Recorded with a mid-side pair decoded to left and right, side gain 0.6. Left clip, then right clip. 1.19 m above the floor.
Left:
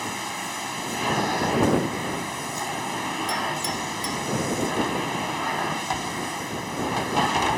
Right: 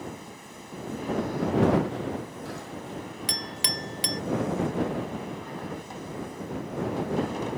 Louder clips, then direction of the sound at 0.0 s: Left 11 dB; 65° left.